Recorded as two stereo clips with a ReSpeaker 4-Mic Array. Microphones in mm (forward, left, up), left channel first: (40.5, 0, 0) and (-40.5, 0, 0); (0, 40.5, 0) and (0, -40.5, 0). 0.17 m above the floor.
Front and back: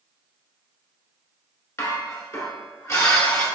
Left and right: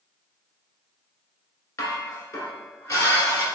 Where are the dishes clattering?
50° left, 1.2 m.